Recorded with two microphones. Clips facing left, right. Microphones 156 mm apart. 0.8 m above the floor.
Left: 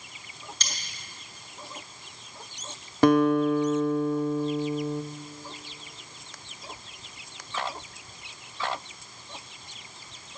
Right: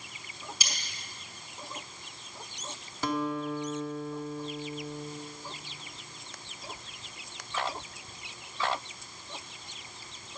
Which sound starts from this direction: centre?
Cutlery clinking, at 0.6 s.